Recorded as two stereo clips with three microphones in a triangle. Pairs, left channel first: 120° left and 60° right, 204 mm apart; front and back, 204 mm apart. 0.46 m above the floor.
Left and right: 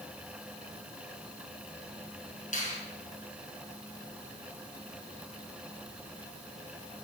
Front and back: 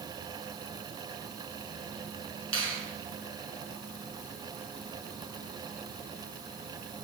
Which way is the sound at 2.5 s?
175° left.